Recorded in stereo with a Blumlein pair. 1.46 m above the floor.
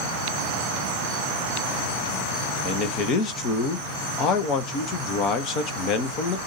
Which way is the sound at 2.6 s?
35° left.